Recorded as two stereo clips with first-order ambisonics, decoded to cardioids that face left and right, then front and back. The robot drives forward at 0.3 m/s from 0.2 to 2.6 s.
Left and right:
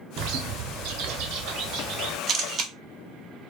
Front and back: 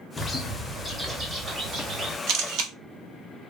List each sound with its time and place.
0.2 s a bird: 80° right, 0.6 m; by 2.2 s 130° right, 0.8 m
2.3 s a camera shutter: 150° right, 0.5 m; by 2.7 s 155° right, 0.6 m